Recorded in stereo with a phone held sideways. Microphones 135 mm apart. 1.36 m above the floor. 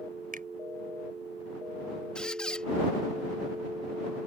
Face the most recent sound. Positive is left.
turn(degrees=5)  # may be behind; listen again after turning